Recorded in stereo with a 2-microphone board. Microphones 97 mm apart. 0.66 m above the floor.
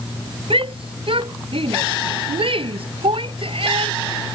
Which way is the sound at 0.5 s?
65° right (ahead or behind).